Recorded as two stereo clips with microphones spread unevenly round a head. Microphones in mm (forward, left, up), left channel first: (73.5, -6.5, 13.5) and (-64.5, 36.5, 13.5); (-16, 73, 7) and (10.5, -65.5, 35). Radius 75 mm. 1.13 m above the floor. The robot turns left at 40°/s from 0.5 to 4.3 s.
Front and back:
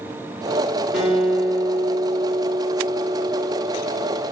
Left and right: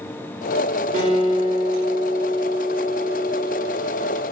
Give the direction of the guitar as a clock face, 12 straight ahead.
4 o'clock.